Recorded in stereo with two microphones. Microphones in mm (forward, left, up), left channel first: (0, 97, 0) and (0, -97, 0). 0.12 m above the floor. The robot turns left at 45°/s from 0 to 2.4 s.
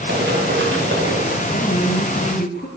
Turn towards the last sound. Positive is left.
turn(degrees=85)